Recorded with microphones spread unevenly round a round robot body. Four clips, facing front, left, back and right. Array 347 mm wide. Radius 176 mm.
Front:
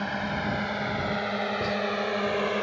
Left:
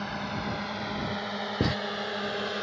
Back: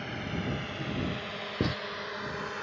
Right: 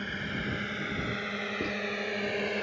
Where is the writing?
100° left.